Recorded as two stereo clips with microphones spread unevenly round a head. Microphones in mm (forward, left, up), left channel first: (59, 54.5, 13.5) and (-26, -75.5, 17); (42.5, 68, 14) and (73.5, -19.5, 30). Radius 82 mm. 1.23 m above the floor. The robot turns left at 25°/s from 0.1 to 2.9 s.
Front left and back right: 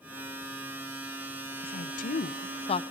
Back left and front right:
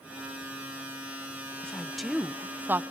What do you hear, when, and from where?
1.6 s a woman speaking: 30° left, 0.6 m; by 2.8 s straight ahead, 0.6 m